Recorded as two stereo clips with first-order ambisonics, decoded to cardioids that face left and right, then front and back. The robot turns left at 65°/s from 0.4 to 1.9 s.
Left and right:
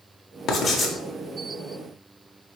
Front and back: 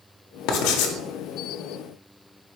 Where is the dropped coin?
I don't hear a dropped coin.